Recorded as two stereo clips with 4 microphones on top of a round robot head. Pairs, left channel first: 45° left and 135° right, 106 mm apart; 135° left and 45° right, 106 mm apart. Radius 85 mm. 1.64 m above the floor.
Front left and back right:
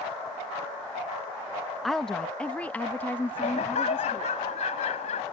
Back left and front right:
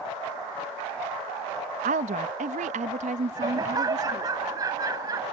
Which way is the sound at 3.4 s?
15° left.